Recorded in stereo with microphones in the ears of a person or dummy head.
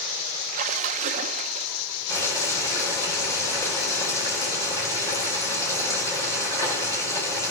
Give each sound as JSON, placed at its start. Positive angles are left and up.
{"t": 0.5, "sound": "a splash", "side_deg": -40, "distance_m": 0.6}
{"t": 2.1, "sound": "boiling", "side_deg": 20, "distance_m": 4.0}